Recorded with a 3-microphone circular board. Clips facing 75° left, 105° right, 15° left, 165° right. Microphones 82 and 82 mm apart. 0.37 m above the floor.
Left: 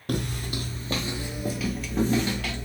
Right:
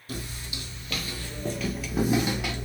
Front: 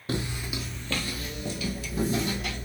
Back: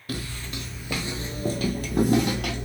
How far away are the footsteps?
About 0.7 m.